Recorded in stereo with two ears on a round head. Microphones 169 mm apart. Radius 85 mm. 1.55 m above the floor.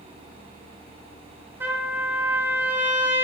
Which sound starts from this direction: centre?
A trumpet, at 1.6 s.